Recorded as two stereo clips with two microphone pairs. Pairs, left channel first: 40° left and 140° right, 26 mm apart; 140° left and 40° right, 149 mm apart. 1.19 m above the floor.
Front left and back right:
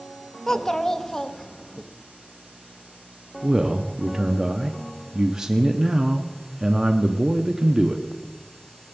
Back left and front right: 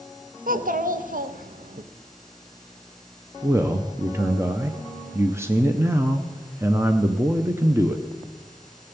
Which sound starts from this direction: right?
A man speaking, at 3.4 s.